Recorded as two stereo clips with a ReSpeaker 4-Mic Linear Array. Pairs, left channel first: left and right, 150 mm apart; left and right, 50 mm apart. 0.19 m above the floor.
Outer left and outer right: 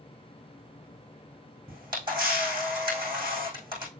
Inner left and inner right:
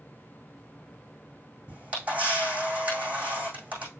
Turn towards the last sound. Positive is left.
turn(degrees=-30)  # may be behind; listen again after turning